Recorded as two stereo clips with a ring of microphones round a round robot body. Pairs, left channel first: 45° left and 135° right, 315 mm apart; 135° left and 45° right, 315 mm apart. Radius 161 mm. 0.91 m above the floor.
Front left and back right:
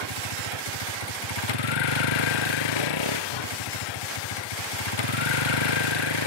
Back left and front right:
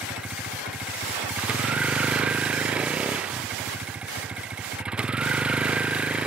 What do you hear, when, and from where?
0.0 s a vehicle: 40° left